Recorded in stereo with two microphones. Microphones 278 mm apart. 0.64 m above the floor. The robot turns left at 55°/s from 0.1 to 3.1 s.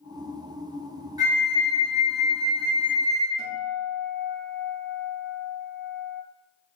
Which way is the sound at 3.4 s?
55° right (ahead or behind).